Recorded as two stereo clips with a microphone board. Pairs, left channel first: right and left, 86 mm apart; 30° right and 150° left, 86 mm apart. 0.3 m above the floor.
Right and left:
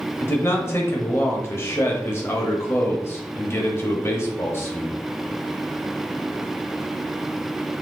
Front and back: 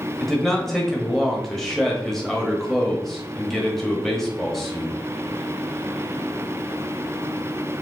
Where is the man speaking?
115° right, 1.2 m.